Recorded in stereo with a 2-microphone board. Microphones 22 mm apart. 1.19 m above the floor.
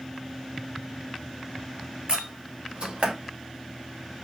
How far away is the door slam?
About 1.8 m.